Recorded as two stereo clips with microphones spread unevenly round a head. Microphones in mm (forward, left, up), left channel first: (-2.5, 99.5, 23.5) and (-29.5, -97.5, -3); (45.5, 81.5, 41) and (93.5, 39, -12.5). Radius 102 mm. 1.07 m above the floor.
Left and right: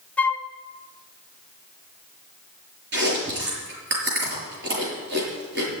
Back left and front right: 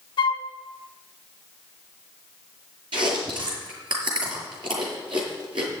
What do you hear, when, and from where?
0.2 s a flute: 175° left, 0.8 m
2.9 s chewing: 55° right, 5.5 m